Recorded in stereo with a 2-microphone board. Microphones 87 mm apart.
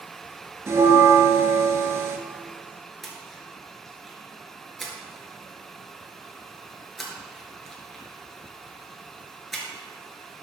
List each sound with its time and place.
0.7 s a bell: 30° right (ahead or behind), 0.9 m
3.0 s a splash: centre (ahead or behind), 2.0 m